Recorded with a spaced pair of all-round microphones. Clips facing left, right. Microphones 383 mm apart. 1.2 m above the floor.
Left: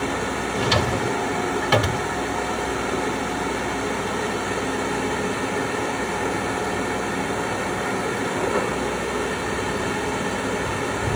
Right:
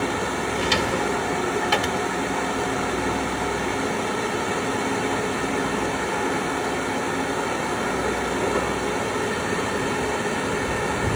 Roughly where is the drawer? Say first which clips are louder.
Left 2 dB; left.